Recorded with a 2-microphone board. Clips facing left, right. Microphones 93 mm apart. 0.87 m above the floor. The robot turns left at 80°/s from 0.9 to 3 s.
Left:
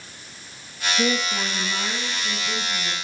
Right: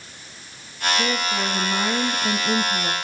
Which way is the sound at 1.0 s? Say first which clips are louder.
Left 3 dB; 20° left.